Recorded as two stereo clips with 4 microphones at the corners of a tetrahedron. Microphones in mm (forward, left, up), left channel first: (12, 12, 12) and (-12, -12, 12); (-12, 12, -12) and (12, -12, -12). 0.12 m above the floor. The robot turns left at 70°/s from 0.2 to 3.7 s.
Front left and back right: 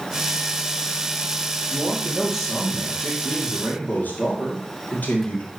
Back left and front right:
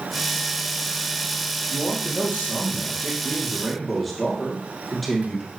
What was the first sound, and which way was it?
A man speaking, 170° right.